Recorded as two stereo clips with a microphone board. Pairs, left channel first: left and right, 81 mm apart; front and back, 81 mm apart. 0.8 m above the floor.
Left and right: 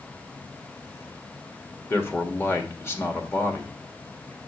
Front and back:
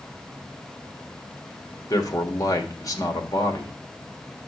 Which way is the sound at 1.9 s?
35° left.